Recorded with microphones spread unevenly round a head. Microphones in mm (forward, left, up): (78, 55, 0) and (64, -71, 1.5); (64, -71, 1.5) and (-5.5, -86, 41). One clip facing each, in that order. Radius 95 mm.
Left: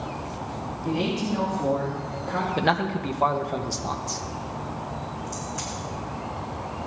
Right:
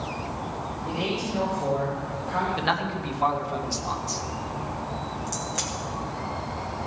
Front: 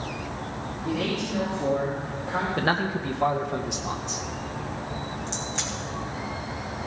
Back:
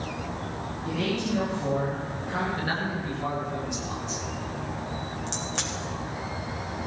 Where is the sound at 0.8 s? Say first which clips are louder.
Left 4 dB, even; 90° left, 3.5 m.